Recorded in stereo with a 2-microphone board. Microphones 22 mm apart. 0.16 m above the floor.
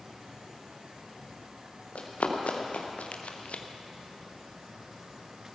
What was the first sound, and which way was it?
Running footsteps, 90° left.